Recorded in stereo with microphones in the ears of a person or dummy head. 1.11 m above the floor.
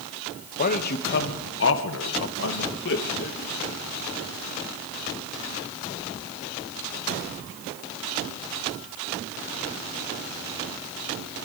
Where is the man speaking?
45° left (ahead or behind), 1.1 m.